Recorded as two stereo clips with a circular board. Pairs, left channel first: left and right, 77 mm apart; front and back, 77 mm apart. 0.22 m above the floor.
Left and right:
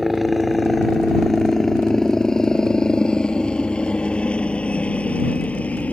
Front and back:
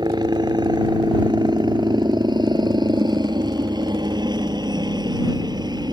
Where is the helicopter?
Straight behind; by 5.9 s 160° left.